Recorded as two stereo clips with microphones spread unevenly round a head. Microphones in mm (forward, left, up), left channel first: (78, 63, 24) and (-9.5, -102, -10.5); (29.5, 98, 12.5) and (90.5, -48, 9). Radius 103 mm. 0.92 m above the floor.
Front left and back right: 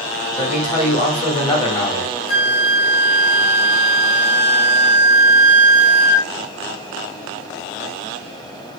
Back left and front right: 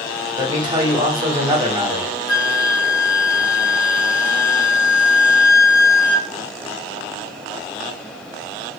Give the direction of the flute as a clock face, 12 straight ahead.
10 o'clock.